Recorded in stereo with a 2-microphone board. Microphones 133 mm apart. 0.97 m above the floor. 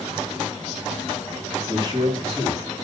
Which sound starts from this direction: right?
A man speaking, at 1.7 s.